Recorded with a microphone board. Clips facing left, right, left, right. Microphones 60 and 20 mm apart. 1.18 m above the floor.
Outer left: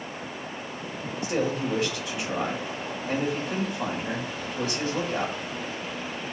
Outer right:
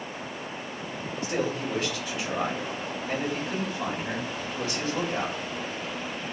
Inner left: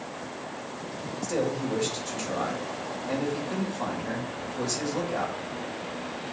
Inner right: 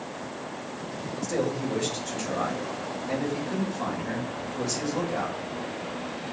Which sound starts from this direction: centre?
A man speaking, at 1.2 s.